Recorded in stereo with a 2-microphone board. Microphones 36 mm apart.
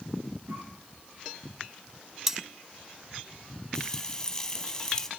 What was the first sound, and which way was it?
A cough, 80° right.